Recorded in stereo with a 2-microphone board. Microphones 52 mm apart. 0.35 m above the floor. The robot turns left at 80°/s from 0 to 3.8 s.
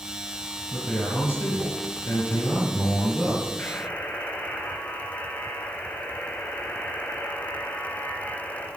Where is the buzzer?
45° left (ahead or behind), 4 m; by 8.7 s 60° left (ahead or behind), 4 m.